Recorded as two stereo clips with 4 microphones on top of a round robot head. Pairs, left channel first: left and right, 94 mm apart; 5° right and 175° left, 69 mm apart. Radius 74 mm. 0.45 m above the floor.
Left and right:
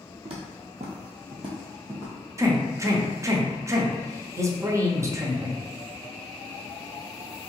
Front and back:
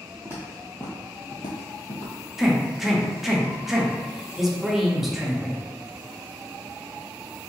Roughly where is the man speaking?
Right.